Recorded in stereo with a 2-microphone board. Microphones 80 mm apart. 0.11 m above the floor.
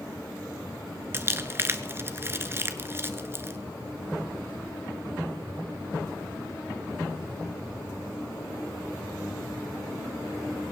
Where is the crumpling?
30° right (ahead or behind), 0.8 m.